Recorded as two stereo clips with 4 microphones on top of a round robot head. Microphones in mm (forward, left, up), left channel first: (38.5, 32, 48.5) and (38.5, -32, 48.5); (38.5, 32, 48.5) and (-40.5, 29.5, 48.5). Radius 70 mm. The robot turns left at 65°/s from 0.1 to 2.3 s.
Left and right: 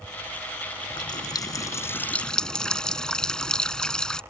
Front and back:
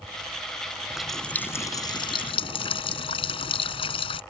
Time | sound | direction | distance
0.9 | a running tap | 100° left | ?